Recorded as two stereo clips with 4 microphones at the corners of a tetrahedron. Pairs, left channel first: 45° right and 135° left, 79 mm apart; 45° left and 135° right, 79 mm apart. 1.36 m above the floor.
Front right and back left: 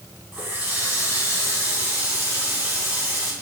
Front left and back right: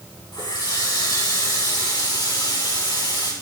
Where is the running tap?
75° left, 6 m.